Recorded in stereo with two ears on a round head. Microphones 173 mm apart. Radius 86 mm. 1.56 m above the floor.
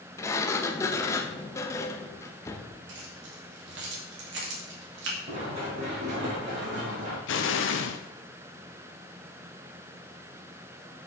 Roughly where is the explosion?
Left.